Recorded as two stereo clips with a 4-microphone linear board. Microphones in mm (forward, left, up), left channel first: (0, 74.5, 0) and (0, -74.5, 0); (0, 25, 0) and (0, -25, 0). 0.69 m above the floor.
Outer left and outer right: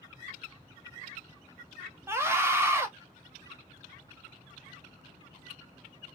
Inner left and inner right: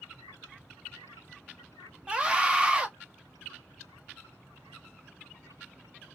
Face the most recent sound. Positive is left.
turn(degrees=-15)  # may be behind; listen again after turning